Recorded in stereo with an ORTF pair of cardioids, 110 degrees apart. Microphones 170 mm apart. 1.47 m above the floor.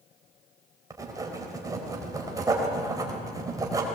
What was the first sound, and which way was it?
Writing, 20° right.